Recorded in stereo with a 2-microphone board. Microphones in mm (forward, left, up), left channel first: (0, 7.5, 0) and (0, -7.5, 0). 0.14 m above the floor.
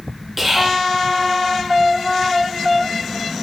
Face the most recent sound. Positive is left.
turn(degrees=-5)  # may be behind; listen again after turning